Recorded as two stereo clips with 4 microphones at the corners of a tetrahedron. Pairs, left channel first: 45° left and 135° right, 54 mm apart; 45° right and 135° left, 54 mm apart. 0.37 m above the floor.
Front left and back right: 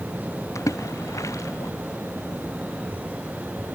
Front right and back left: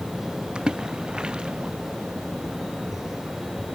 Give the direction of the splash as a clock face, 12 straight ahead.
10 o'clock.